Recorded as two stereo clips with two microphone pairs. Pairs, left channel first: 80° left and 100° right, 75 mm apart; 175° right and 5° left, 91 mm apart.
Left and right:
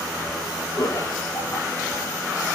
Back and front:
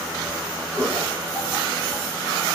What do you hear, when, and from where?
0.8 s laughter: 110° left, 2.5 m